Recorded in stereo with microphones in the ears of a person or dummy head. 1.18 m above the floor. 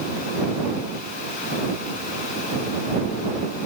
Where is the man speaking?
I don't hear a man speaking.